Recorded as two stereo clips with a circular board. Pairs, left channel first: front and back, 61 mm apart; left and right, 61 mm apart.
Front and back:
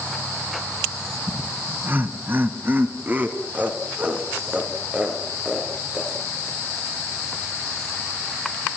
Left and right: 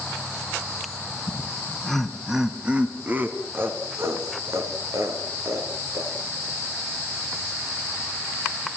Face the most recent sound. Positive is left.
turn(degrees=-110)